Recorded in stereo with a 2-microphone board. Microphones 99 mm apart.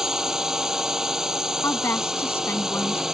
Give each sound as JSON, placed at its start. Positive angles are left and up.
{"t": 0.0, "sound": "a drone", "side_deg": -5}
{"t": 1.6, "sound": "a woman speaking", "side_deg": 25}